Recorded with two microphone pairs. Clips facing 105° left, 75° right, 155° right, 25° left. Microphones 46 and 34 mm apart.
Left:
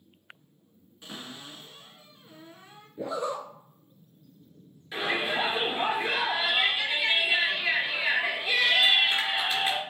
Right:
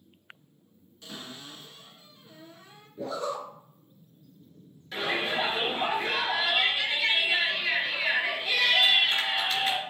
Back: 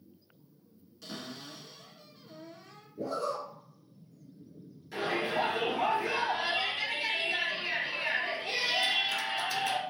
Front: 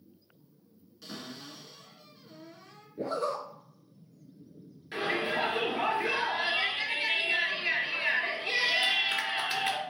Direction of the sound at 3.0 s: 40° left.